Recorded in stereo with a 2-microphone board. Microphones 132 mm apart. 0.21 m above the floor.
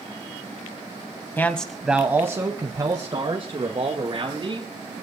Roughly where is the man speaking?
Centre.